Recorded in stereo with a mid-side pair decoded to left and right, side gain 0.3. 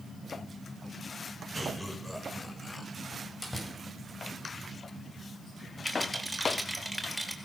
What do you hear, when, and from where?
1.5 s laughter: straight ahead, 7 m
3.1 s a door slam: 25° left, 8.5 m
5.8 s a rattle: 5° right, 4.5 m